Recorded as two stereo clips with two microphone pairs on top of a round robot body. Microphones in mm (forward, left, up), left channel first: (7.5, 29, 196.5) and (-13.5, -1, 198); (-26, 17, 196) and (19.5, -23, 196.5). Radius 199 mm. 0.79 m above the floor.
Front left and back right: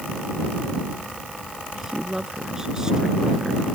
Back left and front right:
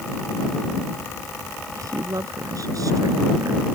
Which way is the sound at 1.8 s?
50° right.